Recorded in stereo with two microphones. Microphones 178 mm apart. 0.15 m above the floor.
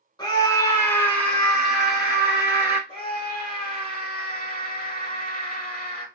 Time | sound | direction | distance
0.2 | a scream | 25° left (ahead or behind) | 1.1 m
2.9 | a scream | 35° right (ahead or behind) | 1.9 m